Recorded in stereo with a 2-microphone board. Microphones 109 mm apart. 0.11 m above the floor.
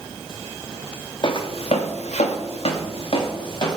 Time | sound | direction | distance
1.2 | footsteps | 45° left (ahead or behind) | 0.7 m